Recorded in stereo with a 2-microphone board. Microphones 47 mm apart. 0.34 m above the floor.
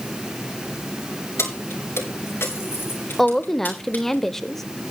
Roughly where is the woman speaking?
Centre.